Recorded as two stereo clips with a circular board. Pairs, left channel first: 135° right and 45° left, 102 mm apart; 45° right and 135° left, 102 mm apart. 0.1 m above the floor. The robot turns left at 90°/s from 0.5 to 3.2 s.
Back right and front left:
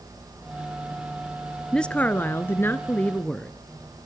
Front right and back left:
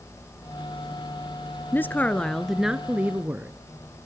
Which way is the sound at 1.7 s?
60° right.